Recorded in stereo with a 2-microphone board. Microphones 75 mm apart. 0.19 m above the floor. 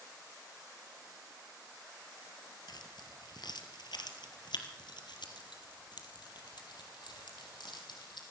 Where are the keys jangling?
65° left (ahead or behind), 2.5 m; by 8.2 s 75° left (ahead or behind), 5 m.